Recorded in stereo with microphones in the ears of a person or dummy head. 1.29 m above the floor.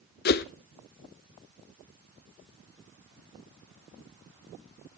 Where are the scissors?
No scissors in this recording.